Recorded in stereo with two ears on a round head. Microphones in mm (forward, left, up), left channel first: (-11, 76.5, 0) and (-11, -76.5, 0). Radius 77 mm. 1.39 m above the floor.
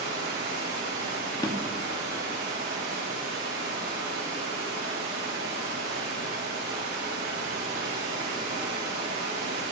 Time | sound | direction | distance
0.0 | running water | 80° right | 4 m
1.4 | a drawer | 20° left (ahead or behind) | 0.9 m